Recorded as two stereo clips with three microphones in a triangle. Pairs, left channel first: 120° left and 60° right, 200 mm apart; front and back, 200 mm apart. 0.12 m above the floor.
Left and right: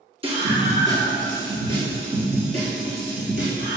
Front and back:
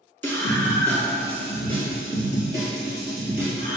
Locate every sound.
0.2 s a scream: 70° right, 1.5 m; by 3.8 s 85° right, 3 m